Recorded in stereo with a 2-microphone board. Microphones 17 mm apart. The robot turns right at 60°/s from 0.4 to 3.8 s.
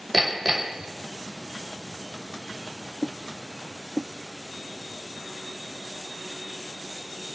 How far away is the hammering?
About 1.9 m.